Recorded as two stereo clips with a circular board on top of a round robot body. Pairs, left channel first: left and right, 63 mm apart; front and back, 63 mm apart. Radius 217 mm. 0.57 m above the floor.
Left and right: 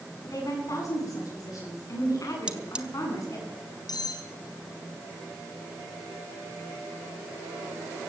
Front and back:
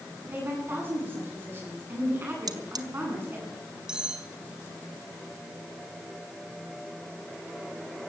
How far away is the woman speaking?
About 9.5 m.